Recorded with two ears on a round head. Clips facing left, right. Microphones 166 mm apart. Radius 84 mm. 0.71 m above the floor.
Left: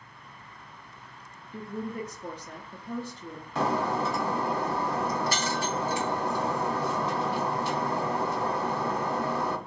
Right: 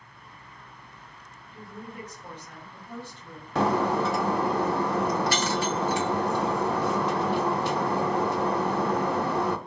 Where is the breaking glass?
55° right (ahead or behind), 0.5 m.